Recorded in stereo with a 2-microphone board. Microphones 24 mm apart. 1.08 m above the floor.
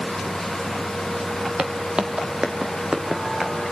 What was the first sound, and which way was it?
Footsteps, 35° right (ahead or behind).